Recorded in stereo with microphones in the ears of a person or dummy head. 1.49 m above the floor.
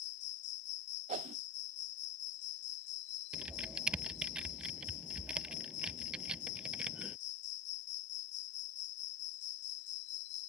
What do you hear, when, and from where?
0.0 s an insect: 60° left (ahead or behind)
1.1 s a whoosh: 40° right (ahead or behind)
3.3 s typing on a keyboard: 5° right (ahead or behind)